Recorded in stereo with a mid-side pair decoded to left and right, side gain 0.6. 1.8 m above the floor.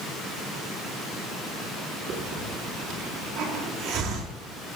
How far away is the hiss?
About 4.5 m.